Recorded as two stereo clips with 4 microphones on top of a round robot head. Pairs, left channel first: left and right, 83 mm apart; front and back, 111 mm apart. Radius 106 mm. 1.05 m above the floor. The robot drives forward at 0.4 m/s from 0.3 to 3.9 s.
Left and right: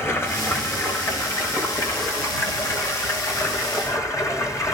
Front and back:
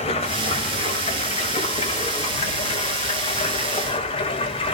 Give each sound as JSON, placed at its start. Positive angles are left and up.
{"t": 0.0, "sound": "running water", "azimuth_deg": 30, "distance_m": 6.0}